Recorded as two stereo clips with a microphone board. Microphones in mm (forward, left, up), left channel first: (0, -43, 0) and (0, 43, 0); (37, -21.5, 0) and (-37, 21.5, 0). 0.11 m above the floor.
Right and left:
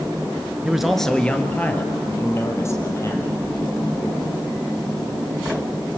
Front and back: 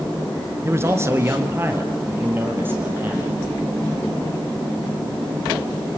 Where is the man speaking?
165° left, 1.5 m; by 3.4 s 140° right, 4 m.